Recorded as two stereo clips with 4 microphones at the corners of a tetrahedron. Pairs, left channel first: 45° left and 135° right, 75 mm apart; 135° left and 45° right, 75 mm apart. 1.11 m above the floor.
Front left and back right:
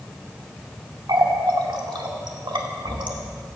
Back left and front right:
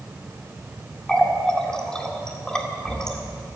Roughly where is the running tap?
Behind right.